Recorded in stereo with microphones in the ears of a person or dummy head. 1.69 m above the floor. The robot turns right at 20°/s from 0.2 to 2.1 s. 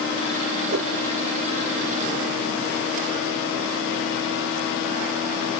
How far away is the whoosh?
About 1.5 m.